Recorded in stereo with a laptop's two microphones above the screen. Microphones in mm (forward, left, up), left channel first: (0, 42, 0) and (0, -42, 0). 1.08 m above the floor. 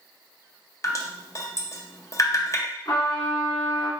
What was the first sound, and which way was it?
Dripping, 40° left (ahead or behind).